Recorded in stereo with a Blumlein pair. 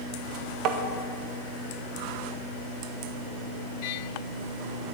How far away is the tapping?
About 1.3 m.